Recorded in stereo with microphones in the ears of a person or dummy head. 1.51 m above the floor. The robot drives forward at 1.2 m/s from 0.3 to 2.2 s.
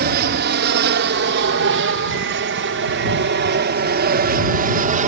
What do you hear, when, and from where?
0.0 s an aircraft: 55° right (ahead or behind); by 5.1 s 40° right (ahead or behind)